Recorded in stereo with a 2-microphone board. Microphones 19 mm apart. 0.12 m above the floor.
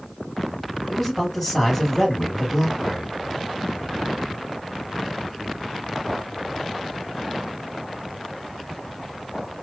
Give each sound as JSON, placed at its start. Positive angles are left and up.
{"t": 0.9, "sound": "a man speaking", "side_deg": 10, "distance_m": 2.5}